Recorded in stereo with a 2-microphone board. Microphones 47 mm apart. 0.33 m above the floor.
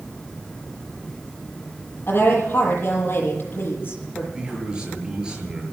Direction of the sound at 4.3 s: 20° right (ahead or behind).